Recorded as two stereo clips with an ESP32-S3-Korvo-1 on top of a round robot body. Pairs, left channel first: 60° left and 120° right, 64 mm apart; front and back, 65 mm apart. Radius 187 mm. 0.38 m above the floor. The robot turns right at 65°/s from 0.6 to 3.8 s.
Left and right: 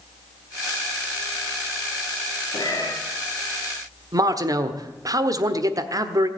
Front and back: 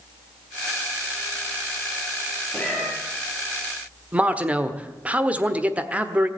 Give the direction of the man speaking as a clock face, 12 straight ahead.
4 o'clock.